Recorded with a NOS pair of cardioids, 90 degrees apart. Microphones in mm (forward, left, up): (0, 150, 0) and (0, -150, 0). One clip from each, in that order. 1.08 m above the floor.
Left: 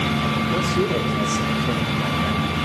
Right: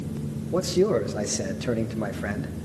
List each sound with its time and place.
0.5 s a man speaking: 10° right, 0.6 m